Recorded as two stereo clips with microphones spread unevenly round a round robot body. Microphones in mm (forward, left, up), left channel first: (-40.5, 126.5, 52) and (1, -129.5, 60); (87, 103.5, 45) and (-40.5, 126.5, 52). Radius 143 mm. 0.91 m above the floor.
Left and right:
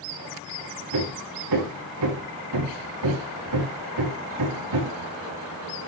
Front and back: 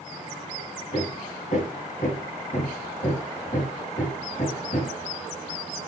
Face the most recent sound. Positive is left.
turn(degrees=-70)